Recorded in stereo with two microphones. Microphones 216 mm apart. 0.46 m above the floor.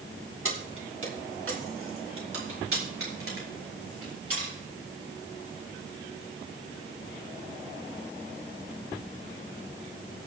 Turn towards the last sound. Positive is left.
turn(degrees=-80)